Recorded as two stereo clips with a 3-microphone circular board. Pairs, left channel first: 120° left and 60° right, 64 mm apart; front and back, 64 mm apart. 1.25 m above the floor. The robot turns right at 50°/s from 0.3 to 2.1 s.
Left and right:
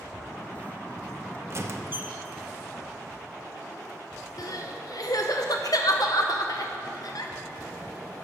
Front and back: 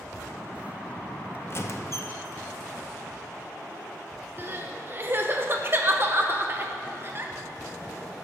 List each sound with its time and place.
1.5 s a squeak: 35° right, 0.7 m; by 2.2 s 5° right, 0.7 m
4.4 s crying: 125° left, 0.8 m